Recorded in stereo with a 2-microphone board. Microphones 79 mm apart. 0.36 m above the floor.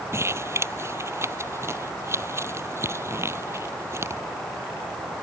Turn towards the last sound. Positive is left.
turn(degrees=-35)  # may be behind; listen again after turning